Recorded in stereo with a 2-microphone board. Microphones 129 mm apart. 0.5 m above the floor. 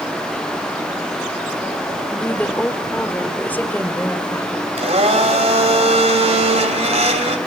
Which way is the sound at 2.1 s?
15° left (ahead or behind).